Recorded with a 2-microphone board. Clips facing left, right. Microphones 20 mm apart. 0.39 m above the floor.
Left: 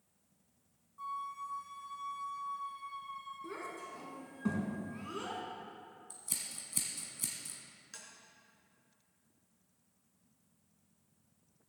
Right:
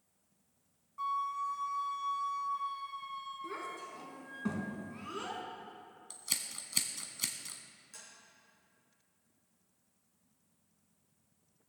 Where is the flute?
55° right (ahead or behind), 1.2 m.